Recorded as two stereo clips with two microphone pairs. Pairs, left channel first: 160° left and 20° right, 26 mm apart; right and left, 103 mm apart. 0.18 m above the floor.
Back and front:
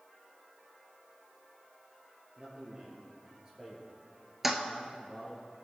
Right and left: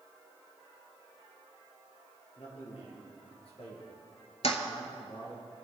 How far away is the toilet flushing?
About 0.9 m.